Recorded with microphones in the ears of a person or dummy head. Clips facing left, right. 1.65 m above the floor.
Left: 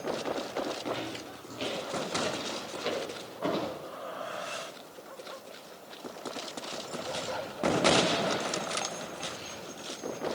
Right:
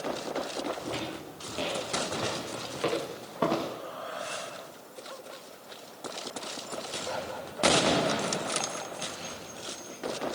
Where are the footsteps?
70° right (ahead or behind), 7.5 m; by 3.7 s 80° right, 10.5 m.